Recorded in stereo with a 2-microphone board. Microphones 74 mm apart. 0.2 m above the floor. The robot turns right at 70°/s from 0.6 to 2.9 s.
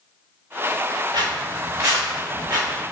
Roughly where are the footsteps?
Right.